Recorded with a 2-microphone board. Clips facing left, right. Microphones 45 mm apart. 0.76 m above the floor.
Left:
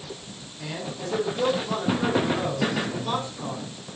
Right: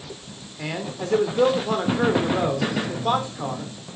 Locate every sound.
0.6 s a man speaking: 55° right (ahead or behind), 3 m